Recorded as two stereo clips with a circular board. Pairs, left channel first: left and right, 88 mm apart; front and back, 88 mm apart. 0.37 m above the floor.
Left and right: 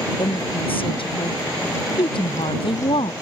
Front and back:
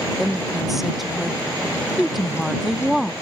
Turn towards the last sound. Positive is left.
turn(degrees=90)